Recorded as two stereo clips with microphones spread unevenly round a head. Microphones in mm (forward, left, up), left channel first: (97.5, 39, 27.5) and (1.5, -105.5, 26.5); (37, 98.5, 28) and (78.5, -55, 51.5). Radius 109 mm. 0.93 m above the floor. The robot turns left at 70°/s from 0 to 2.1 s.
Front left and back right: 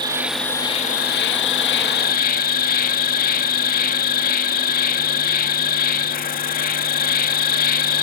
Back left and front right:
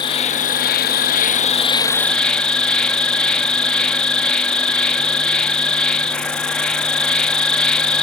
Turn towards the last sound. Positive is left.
turn(degrees=25)